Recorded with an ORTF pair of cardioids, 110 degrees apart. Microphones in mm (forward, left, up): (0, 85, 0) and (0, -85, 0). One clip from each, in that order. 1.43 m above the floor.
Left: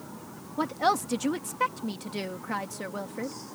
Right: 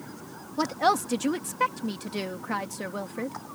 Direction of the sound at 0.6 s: 10° right.